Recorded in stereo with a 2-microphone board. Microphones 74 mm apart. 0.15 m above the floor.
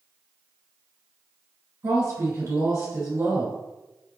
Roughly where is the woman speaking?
Right.